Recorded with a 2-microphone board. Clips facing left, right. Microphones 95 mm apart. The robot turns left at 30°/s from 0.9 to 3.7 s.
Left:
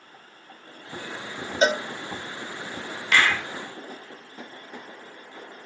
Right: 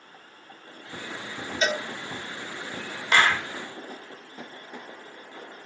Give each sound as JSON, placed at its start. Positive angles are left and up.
{"t": 1.6, "sound": "a cowbell", "side_deg": 35, "distance_m": 0.9}
{"t": 3.1, "sound": "a clap", "side_deg": -25, "distance_m": 0.7}